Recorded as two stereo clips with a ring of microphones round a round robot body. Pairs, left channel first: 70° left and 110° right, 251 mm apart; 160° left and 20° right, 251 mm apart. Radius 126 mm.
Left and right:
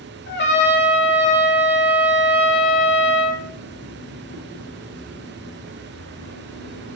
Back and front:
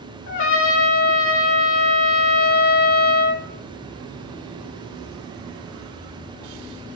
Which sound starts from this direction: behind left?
A trumpet, at 0.3 s.